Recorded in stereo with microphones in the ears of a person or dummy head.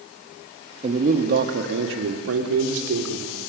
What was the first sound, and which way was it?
A man speaking, 25° right (ahead or behind).